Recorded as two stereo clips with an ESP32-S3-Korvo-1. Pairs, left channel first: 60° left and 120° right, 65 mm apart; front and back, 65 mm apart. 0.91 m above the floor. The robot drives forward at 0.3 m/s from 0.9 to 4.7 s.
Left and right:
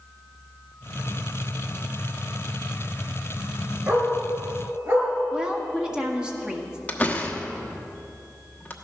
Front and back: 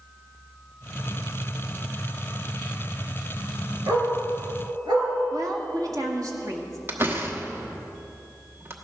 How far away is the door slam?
About 1.2 m.